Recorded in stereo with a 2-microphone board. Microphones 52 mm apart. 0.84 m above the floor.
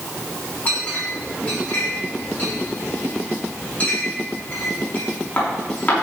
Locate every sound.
0.7 s a clink: 30° left (ahead or behind), 5.5 m